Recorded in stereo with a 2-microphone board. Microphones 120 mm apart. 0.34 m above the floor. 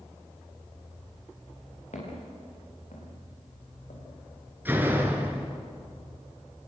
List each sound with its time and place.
1.9 s footsteps: 75° left (ahead or behind), 10 m
4.7 s a door slam: 15° right (ahead or behind), 3.5 m